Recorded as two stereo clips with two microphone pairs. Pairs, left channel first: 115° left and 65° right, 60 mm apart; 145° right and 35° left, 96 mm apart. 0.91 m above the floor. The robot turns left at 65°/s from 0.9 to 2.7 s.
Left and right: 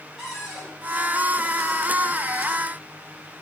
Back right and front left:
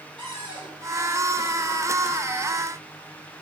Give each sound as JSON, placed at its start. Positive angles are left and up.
{"t": 0.2, "sound": "a cupboard door", "azimuth_deg": 10, "distance_m": 3.0}